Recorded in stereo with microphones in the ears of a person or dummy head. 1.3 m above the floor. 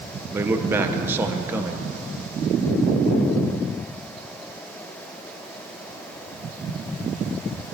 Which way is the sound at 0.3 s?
15° right (ahead or behind).